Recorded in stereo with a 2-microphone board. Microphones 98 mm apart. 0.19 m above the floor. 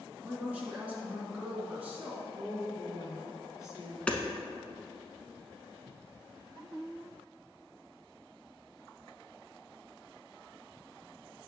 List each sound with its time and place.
0.2 s a woman speaking: 15° right (ahead or behind), 2.5 m
2.3 s a woman speaking: 35° left (ahead or behind), 2 m
4.1 s hammering: 10° left (ahead or behind), 0.8 m